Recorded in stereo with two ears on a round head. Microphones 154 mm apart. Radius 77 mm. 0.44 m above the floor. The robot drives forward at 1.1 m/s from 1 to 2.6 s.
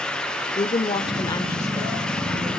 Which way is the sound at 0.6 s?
30° left (ahead or behind).